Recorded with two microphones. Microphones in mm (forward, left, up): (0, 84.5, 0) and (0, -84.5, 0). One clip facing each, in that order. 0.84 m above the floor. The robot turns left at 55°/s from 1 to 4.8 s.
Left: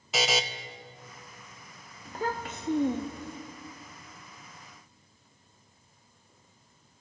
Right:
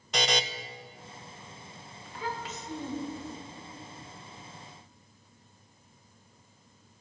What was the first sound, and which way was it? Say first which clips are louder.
A buzzer: left 1 dB; 5° left (ahead or behind).